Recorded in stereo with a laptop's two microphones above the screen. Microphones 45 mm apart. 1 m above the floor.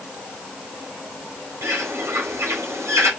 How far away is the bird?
About 3.5 m.